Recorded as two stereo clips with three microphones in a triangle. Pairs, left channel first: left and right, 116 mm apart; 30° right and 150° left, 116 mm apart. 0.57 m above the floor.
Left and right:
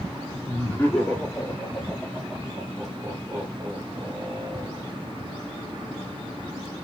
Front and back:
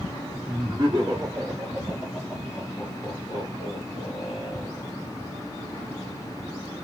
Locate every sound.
0.5 s laughter: 155° left, 1.3 m; by 4.9 s 40° right, 1.6 m